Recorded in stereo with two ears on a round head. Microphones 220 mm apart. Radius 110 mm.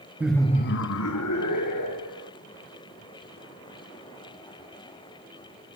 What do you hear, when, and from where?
0.2 s laughter: 10° right (ahead or behind), 0.8 m; by 2.3 s 85° left, 2.5 m